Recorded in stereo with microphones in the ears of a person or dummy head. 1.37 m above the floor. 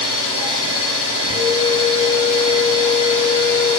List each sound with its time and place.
0.0 s an engine running: 50° right (ahead or behind), 0.8 m
1.3 s a flute: 5° left (ahead or behind), 1.0 m